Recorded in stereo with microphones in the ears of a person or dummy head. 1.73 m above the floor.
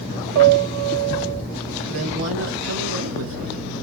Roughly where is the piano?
Right.